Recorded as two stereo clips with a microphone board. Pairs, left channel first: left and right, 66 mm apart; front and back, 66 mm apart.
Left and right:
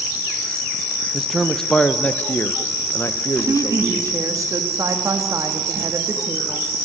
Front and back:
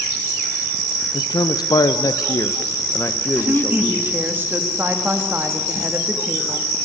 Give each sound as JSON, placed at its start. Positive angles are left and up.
{"t": 1.1, "sound": "a man speaking", "azimuth_deg": -10, "distance_m": 1.0}
{"t": 3.4, "sound": "a woman speaking", "azimuth_deg": -120, "distance_m": 2.5}